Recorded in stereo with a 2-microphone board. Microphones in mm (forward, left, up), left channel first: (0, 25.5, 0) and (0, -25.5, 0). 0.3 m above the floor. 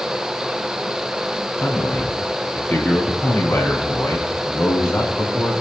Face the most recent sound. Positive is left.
turn(degrees=55)  # may be behind; listen again after turning